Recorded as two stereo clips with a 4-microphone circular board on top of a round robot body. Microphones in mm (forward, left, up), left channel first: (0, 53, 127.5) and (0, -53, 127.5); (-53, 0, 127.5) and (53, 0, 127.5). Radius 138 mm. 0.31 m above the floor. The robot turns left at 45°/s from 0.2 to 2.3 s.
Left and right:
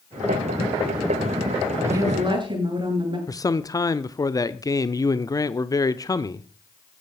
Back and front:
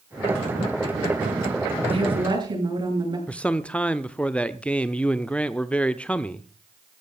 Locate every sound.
1.8 s a woman speaking: 25° right, 8 m; by 3.2 s 45° right, 8 m
3.3 s a man speaking: 110° left, 0.9 m